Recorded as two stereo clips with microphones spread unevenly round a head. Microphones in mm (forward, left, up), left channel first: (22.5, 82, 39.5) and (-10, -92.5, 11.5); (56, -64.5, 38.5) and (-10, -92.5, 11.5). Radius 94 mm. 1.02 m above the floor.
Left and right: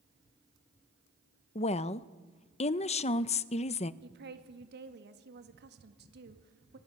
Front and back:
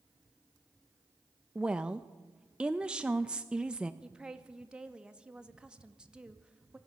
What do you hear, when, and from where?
1.6 s a woman speaking: 135° left, 0.6 m
4.0 s a woman speaking: 85° right, 1.9 m